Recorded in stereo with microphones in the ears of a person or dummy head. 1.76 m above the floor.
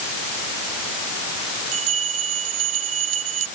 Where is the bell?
85° right.